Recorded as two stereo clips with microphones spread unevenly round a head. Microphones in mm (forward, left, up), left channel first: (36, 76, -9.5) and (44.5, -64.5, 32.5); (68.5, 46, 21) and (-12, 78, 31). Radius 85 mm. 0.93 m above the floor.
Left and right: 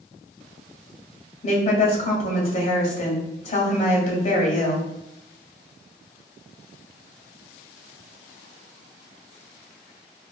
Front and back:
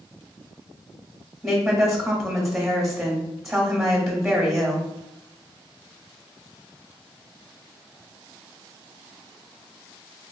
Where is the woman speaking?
70° left, 1.5 m.